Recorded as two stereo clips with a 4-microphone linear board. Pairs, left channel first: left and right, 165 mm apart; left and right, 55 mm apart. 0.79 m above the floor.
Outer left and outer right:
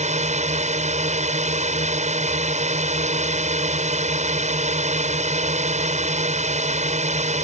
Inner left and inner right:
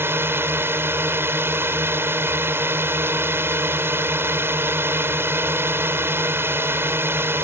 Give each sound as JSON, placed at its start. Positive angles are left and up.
{"t": 0.0, "sound": "a drone", "side_deg": -45}